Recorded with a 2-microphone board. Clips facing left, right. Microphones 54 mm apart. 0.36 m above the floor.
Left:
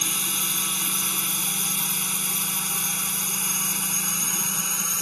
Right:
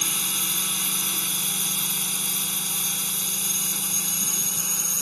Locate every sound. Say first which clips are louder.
0.0 s a drone: left 1 dB; 10° left (ahead or behind); by 5.0 s 50° left (ahead or behind)